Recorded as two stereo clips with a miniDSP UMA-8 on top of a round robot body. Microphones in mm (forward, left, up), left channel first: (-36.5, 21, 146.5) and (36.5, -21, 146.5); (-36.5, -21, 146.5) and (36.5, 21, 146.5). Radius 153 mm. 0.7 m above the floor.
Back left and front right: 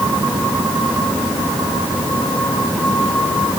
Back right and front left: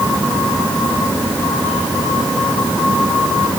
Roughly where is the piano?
No piano in this recording.